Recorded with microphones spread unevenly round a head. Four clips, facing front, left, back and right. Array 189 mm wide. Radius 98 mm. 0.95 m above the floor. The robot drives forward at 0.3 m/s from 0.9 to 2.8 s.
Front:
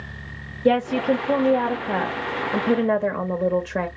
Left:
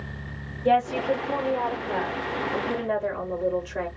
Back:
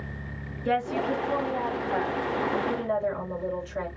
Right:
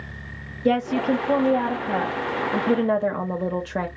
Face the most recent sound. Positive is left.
turn(degrees=-40)